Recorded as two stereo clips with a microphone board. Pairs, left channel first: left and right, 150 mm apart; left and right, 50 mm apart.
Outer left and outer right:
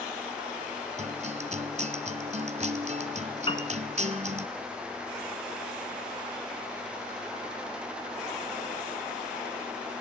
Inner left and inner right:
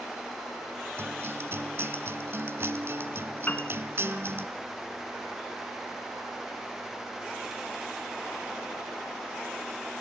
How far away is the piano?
About 1.9 m.